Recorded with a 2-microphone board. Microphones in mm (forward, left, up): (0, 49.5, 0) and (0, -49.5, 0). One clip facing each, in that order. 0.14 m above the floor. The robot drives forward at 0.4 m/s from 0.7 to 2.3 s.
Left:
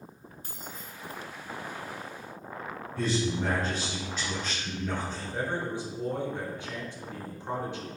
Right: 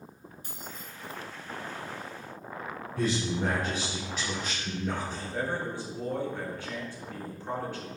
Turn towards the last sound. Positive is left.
turn(degrees=20)  # may be behind; listen again after turning